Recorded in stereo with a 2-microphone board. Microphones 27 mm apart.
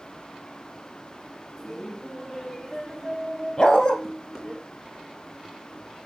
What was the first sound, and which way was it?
Laughter, 15° left (ahead or behind).